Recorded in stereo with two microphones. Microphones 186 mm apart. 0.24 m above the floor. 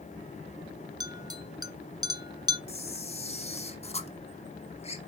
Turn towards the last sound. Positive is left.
turn(degrees=35)  # may be behind; listen again after turning